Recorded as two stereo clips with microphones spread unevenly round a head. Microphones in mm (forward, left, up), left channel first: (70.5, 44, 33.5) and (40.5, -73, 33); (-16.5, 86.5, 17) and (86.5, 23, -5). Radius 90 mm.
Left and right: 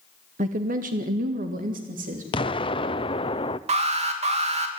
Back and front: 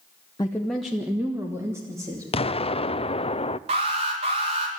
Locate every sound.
0.4 s a woman speaking: 140° right, 0.9 m; by 2.2 s 105° right, 3 m
2.3 s an explosion: 110° left, 0.6 m
3.7 s an alarm: 75° right, 3 m